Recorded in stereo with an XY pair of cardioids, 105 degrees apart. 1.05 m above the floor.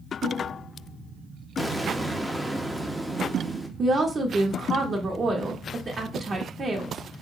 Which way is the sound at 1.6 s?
5° right.